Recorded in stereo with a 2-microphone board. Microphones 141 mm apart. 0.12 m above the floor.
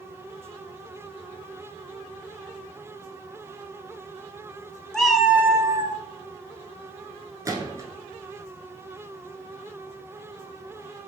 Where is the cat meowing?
5° left (ahead or behind), 0.6 m; by 6.0 s 30° right (ahead or behind), 0.6 m.